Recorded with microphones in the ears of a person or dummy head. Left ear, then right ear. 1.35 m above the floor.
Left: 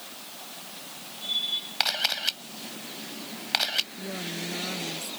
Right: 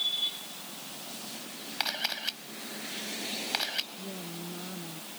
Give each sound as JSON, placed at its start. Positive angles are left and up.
{"t": 1.8, "sound": "a camera shutter", "side_deg": 15}
{"t": 4.0, "sound": "a woman speaking", "side_deg": 80}